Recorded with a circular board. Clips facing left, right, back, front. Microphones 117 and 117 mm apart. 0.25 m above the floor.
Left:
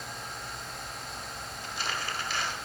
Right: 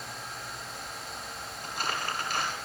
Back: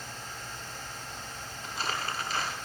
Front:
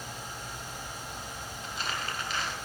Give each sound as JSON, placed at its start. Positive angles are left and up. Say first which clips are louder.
{"t": 1.6, "sound": "crumpling", "louder": "right 2 dB, back 2 dB", "azimuth_deg": -130, "distance_m": 1.0}